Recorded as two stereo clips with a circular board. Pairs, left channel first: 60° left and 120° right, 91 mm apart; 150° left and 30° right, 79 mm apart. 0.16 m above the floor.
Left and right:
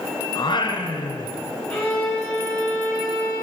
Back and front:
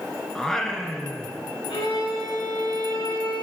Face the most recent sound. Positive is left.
turn(degrees=135)